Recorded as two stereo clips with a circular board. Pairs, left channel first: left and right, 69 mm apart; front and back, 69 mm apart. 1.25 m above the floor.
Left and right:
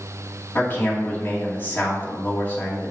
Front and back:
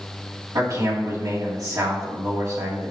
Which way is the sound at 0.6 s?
150° left.